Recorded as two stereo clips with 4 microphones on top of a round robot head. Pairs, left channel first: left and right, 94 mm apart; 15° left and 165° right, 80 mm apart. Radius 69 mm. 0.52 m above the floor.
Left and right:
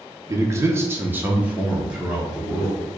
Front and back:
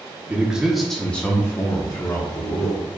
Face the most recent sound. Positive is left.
turn(degrees=0)